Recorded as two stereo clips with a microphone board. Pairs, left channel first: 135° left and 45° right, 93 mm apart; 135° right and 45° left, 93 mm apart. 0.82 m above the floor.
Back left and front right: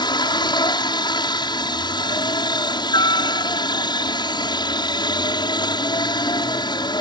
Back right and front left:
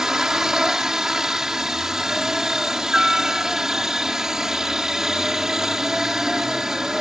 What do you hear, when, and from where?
0.0 s a helicopter: 130° left